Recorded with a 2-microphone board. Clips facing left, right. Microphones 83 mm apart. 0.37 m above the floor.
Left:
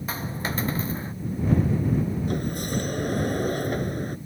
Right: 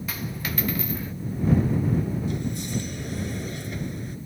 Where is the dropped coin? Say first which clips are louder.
Left 4 dB; 30° left (ahead or behind).